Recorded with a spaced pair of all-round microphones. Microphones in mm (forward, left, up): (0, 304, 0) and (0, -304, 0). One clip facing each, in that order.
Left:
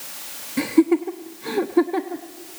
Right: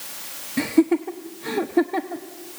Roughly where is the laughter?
Centre.